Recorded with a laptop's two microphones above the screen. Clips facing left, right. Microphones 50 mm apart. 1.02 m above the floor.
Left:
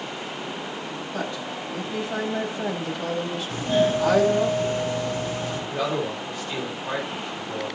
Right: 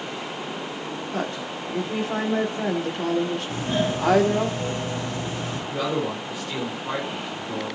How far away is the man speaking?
About 5 m.